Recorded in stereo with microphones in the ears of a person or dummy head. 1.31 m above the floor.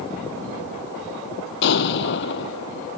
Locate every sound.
1.6 s an explosion: 60° left (ahead or behind)